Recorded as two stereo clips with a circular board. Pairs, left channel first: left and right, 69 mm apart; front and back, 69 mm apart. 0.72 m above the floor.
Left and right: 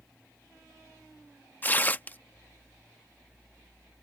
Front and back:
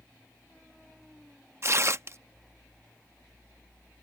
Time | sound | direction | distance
1.6 | tearing paper | 145° left | ?